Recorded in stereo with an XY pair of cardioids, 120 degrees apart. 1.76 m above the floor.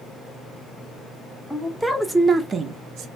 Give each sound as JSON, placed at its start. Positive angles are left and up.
{"t": 1.5, "sound": "a woman speaking", "azimuth_deg": 10, "distance_m": 0.9}